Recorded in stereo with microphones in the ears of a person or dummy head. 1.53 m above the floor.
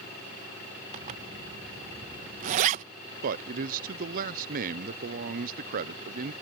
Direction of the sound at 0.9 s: 35° right (ahead or behind).